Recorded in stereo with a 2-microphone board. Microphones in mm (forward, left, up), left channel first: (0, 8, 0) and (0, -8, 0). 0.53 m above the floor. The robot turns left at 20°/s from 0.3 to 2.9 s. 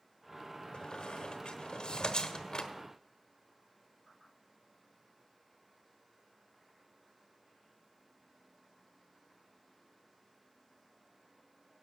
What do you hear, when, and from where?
0.7 s a squeak: 65° left (ahead or behind), 0.9 m; by 2.7 s 55° left (ahead or behind), 0.9 m